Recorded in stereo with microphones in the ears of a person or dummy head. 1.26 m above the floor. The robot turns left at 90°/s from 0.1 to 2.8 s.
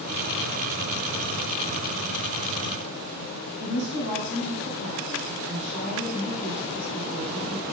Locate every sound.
3.6 s a woman speaking: 90° right, 3 m